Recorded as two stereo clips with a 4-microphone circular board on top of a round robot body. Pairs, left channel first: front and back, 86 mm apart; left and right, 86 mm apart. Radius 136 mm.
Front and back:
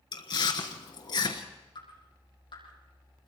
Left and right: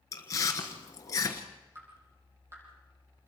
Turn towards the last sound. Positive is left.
turn(degrees=-30)